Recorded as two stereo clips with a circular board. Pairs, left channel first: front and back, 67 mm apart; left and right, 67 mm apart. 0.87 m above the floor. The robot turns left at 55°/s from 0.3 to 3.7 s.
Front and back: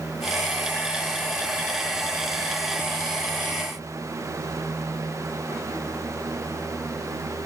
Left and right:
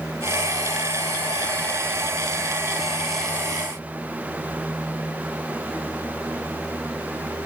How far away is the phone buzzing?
I don't hear a phone buzzing.